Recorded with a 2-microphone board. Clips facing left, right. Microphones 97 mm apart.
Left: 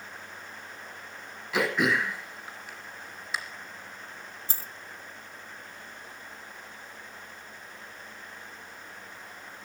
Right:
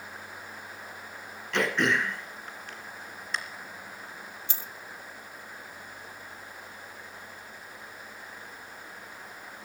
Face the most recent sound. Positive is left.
turn(degrees=40)  # may be behind; listen again after turning